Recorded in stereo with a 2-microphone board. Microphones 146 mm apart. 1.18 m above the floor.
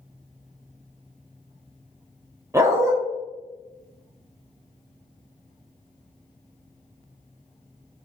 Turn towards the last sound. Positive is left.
turn(degrees=-20)  # may be behind; listen again after turning